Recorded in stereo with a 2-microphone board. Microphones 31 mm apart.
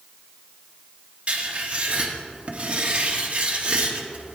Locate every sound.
1.3 s writing: 40° right (ahead or behind), 1.2 m